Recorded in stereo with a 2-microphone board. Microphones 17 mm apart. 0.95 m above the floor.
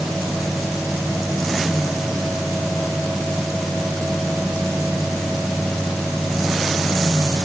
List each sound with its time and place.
Only background noise.